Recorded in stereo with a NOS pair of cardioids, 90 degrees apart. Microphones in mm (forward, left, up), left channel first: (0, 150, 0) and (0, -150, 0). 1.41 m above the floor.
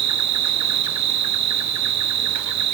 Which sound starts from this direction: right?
An insect, at 0.0 s.